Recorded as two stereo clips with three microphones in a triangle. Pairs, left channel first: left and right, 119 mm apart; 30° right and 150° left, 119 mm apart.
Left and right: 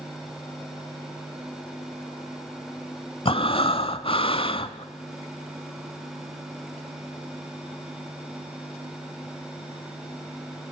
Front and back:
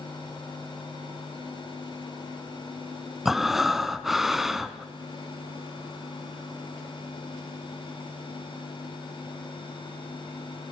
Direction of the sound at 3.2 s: 65° left.